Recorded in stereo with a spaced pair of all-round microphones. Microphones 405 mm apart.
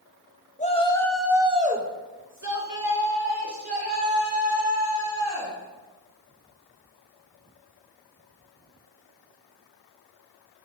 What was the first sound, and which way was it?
A shout, 20° left (ahead or behind).